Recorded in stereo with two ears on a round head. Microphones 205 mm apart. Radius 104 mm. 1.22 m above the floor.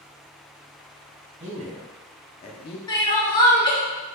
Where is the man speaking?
35° right (ahead or behind), 1.1 m; by 2.8 s 50° left (ahead or behind), 0.7 m.